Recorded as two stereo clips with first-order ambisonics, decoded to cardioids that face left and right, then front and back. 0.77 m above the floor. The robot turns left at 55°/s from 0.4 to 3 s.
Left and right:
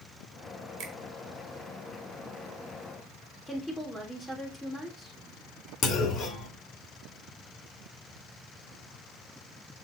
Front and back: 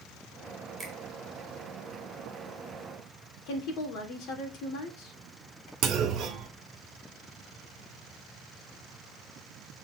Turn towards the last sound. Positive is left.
turn(degrees=140)